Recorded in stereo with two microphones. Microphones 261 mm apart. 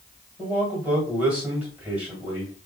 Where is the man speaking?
5° right (ahead or behind), 1.7 m.